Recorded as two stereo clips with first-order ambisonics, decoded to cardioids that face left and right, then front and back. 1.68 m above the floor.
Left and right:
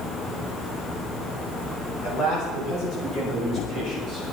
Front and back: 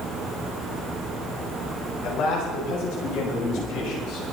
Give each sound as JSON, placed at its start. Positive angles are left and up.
{"t": 2.0, "sound": "a man speaking", "azimuth_deg": 35, "distance_m": 7.0}